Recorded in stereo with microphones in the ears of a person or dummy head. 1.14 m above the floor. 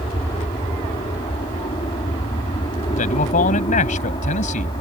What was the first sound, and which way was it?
An aircraft, 20° left (ahead or behind).